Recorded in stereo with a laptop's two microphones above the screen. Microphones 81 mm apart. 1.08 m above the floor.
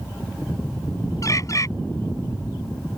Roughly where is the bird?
Left.